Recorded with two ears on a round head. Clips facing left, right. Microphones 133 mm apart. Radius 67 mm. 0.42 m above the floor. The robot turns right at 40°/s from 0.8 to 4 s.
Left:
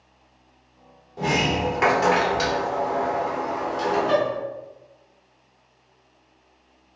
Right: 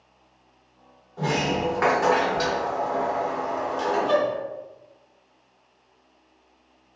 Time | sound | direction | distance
1.2 | a sliding door | 20° left (ahead or behind) | 0.9 m